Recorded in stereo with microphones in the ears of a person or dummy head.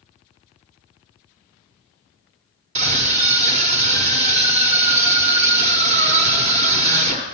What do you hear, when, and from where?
2.8 s a scream: 40° right (ahead or behind), 0.9 m